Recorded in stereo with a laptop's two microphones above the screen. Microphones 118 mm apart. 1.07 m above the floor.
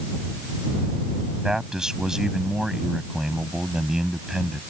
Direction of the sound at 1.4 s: 5° right (ahead or behind).